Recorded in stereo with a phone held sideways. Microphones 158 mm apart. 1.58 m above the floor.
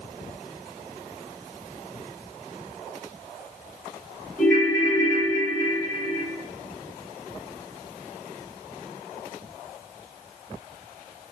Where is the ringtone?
10° left (ahead or behind), 1.4 m.